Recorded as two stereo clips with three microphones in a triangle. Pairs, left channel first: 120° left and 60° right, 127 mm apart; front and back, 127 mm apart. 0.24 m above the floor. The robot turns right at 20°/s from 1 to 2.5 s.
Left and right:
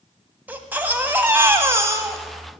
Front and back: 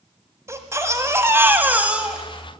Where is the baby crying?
130° right, 1.1 m; by 2.5 s 100° right, 1.1 m.